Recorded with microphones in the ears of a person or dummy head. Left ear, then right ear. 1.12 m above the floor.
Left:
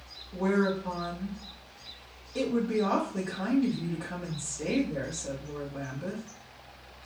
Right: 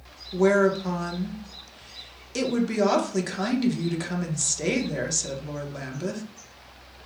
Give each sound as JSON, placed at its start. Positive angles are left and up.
{"t": 0.3, "sound": "a woman speaking", "side_deg": -60, "distance_m": 0.8}